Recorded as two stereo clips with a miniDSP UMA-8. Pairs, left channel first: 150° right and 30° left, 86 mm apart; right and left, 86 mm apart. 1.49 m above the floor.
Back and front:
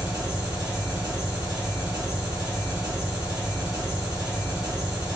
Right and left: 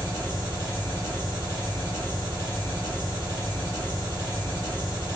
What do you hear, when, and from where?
0.0 s an engine running: 35° right, 1.5 m